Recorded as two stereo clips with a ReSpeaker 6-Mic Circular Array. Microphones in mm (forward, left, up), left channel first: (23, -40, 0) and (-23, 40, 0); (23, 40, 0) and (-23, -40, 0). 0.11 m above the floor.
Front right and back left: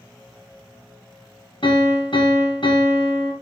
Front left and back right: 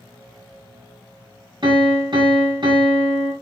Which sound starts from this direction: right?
A piano, at 1.6 s.